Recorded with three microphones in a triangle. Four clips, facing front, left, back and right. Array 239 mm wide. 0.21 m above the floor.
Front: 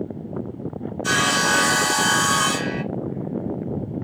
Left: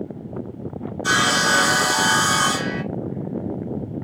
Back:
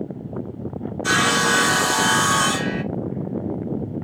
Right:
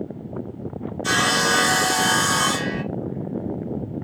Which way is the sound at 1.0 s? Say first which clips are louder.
Left 1 dB, back 2 dB; 165° left.